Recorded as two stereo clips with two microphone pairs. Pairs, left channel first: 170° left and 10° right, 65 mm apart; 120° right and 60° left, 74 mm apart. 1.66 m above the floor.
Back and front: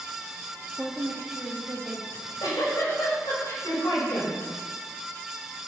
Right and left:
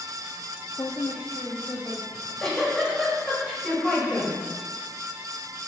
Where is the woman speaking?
90° right, 0.8 m; by 2.0 s 70° right, 2.5 m.